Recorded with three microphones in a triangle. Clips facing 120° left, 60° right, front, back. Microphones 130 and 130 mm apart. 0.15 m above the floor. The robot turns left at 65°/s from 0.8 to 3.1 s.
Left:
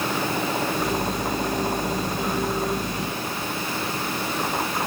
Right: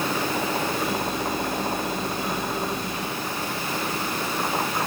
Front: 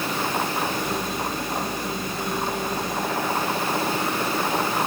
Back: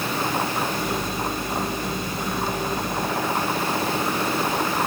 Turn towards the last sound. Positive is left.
No sound to turn to.